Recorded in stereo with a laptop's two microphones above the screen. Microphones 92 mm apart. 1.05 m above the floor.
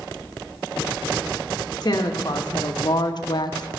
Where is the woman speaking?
50° left (ahead or behind), 1.4 m; by 3.7 s 45° left (ahead or behind), 0.5 m.